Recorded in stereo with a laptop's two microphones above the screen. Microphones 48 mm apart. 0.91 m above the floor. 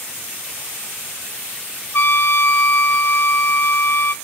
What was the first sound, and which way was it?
A trumpet, 65° left (ahead or behind).